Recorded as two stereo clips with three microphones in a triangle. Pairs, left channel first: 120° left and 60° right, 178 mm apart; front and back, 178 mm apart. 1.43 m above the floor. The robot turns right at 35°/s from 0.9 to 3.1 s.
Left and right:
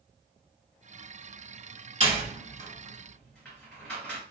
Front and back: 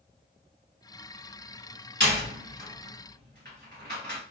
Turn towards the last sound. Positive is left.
turn(degrees=-155)